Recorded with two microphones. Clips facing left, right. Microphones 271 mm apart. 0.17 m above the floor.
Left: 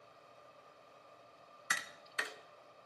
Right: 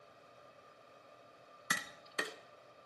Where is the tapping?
50° right (ahead or behind), 0.6 m.